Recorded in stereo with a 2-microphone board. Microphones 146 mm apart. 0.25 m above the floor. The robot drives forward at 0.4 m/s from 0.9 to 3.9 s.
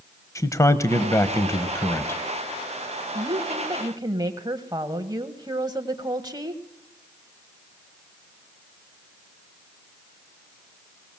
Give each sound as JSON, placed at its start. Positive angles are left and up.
{"t": 0.3, "sound": "a man speaking", "side_deg": 20, "distance_m": 0.9}
{"t": 3.1, "sound": "a woman speaking", "side_deg": -25, "distance_m": 1.1}